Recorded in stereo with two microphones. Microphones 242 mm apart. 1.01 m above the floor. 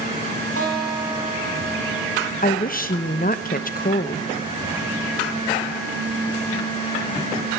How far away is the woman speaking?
About 0.8 m.